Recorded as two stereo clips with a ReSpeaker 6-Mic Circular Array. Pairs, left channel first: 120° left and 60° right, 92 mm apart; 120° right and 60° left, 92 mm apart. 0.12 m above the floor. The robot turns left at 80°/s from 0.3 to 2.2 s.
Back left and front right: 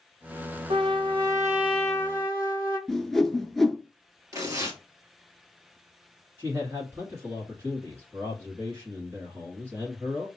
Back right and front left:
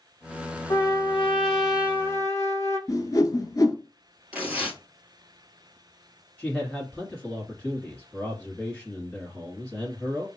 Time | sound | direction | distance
0.7 | a trumpet | 70° right | 0.9 m
2.9 | a whoosh | 155° right | 0.8 m
4.3 | tearing paper | 10° right | 1.5 m
6.4 | a man speaking | 45° right | 1.4 m